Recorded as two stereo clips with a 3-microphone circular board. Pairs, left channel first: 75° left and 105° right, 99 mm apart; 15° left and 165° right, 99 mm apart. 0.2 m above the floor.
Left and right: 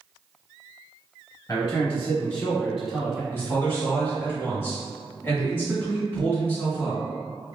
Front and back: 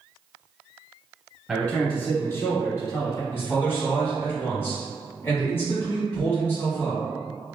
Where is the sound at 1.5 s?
105° left, 1.3 m; by 3.2 s 20° right, 1.4 m.